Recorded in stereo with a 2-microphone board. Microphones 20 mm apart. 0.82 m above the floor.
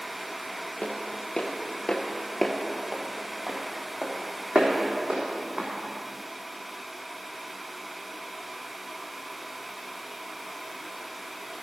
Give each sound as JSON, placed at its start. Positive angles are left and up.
{"t": 0.8, "sound": "footsteps", "side_deg": 65, "distance_m": 1.7}